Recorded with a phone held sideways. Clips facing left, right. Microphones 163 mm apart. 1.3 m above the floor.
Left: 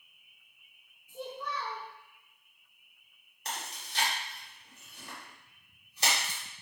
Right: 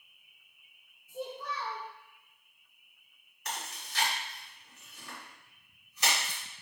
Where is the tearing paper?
No tearing paper in this recording.